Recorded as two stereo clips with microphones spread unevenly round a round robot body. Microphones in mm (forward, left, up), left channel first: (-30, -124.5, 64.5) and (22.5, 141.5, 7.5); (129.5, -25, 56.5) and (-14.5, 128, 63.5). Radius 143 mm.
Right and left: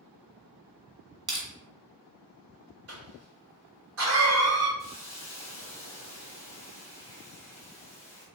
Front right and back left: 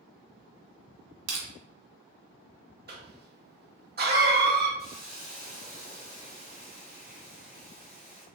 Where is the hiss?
15° right, 1.5 m.